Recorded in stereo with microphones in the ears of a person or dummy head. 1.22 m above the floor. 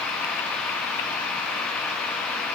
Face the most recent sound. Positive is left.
No sound to turn to.